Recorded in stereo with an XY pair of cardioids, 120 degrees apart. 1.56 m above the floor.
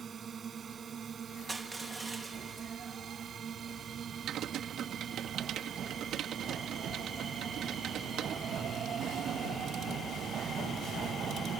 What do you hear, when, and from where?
0.0 s a drone: 35° right
1.5 s crushing: 20° right
4.3 s typing on a keyboard: 60° right